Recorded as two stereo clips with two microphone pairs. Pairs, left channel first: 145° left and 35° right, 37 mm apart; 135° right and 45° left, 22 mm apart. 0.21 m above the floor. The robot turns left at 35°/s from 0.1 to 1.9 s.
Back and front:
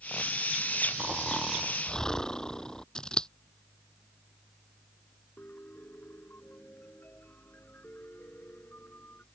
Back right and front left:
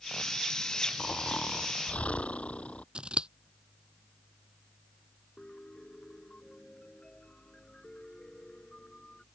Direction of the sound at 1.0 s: 110° right.